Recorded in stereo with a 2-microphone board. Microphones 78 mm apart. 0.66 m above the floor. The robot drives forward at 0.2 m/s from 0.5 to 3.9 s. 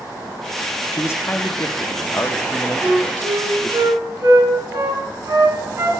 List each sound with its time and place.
0.9 s a man speaking: 35° left (ahead or behind), 0.8 m; by 3.8 s 25° left (ahead or behind), 1.0 m
2.8 s a flute: 35° right (ahead or behind), 4 m